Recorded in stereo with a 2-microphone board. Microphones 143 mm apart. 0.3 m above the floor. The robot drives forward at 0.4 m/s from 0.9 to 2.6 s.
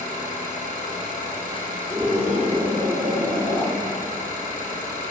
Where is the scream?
35° right (ahead or behind), 10 m.